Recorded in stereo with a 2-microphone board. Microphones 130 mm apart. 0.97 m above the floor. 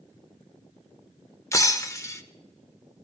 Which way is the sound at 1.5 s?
25° left (ahead or behind).